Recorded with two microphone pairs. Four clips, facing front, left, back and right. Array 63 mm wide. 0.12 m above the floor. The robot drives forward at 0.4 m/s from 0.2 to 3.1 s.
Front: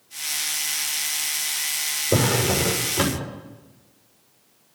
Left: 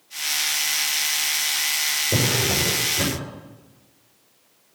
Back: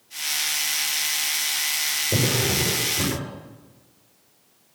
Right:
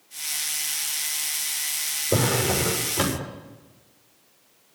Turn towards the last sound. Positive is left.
turn(degrees=-45)